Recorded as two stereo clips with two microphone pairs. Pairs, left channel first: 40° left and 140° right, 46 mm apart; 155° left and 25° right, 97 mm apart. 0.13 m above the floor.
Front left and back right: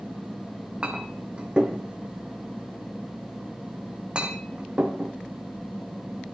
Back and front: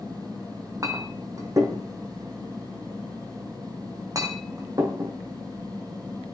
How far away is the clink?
About 3.5 m.